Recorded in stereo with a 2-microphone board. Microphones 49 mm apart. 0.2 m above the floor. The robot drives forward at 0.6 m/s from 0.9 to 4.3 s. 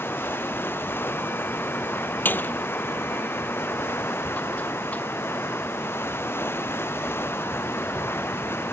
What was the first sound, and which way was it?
Running water, 50° left (ahead or behind).